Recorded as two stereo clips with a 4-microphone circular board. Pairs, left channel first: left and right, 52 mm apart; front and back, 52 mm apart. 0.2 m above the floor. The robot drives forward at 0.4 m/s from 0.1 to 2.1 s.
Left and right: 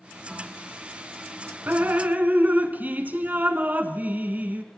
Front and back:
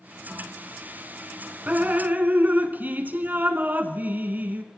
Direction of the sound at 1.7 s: 125° right.